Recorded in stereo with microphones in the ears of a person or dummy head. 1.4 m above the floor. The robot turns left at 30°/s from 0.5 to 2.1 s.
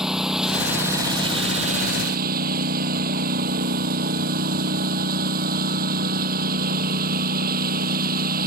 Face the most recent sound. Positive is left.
turn(degrees=-50)